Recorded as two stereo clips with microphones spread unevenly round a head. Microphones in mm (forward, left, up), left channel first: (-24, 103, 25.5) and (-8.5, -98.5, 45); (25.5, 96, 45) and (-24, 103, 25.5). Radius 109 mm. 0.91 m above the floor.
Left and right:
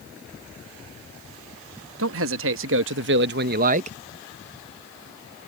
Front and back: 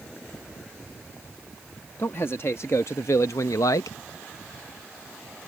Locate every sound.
2.0 s a man speaking: 80° right; by 4.0 s 30° right